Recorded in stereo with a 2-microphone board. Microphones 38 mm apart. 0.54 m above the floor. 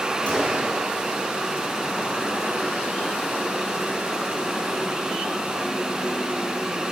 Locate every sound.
0.3 s a gunshot: 35° left (ahead or behind), 9.5 m